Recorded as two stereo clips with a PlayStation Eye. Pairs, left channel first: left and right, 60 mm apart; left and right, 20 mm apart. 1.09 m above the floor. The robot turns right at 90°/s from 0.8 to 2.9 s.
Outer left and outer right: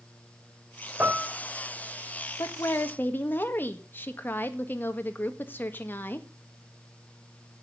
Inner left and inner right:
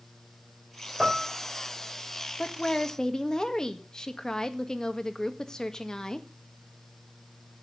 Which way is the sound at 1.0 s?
35° right (ahead or behind).